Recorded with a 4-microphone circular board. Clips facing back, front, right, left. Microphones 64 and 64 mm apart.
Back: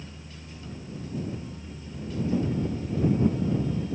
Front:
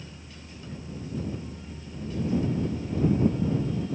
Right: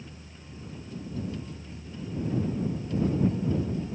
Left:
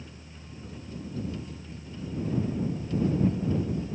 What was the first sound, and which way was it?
Only background noise.